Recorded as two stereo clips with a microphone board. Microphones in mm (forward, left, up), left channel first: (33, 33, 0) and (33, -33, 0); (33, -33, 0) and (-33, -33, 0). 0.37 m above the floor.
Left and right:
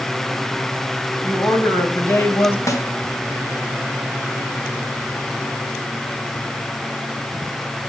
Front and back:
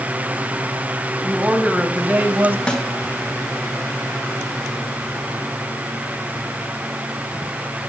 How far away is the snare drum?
About 2.5 m.